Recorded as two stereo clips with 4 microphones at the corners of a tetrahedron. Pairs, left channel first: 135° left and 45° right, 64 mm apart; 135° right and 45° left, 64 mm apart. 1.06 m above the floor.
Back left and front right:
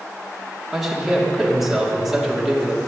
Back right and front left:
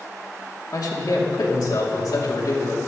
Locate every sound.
0.7 s a man speaking: 130° right, 2.5 m